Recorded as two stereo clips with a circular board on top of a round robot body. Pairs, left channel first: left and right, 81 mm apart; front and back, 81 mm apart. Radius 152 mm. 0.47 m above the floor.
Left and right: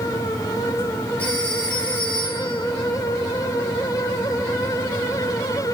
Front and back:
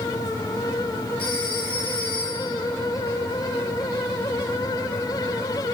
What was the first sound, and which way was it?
A phone ringing, 15° left.